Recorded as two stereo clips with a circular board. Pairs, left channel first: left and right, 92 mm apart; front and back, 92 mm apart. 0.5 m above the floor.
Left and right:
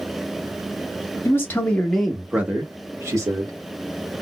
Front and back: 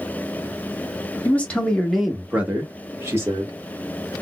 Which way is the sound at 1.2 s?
55° left.